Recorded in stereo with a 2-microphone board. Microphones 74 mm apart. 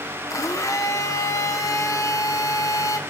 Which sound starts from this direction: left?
A blender, at 0.3 s.